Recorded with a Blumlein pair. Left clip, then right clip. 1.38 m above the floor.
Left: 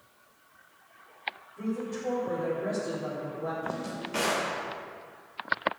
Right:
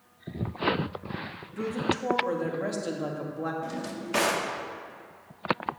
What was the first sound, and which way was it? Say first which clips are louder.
A woman speaking: right 11 dB; 50° right.